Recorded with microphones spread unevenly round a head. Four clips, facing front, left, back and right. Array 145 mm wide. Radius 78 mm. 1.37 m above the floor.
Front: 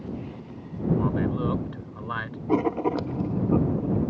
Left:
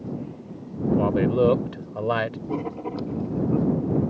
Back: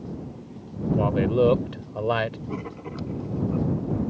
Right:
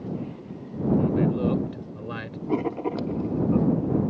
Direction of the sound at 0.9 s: 125° left.